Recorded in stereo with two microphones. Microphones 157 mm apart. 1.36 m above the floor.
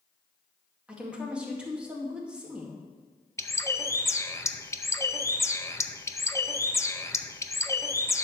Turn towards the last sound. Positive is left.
turn(degrees=20)  # may be behind; listen again after turning